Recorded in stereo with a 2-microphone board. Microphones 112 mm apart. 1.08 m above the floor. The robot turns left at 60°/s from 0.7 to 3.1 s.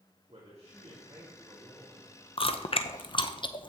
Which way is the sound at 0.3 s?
120° right.